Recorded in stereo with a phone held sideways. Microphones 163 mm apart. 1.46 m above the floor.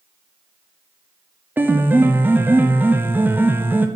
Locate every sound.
1.6 s a piano: 10° right (ahead or behind), 0.6 m